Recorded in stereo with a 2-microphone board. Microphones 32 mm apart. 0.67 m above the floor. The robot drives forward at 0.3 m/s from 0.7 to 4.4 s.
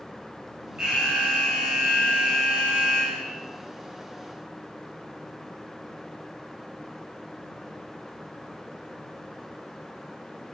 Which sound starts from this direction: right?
An alarm, at 0.8 s.